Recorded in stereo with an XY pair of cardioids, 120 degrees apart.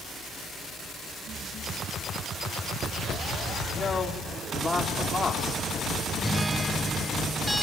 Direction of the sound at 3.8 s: 20° left.